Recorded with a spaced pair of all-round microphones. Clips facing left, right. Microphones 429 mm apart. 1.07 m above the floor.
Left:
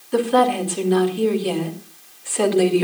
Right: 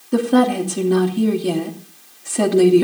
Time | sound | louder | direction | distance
0.1 | a woman speaking | right 3 dB | 60° right (ahead or behind) | 2.5 m